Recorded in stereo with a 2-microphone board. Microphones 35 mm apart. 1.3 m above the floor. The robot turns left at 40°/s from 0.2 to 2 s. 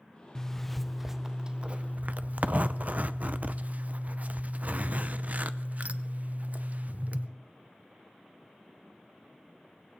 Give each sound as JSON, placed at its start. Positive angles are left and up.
{"t": 0.3, "sound": "a zipper", "azimuth_deg": 15, "distance_m": 0.6}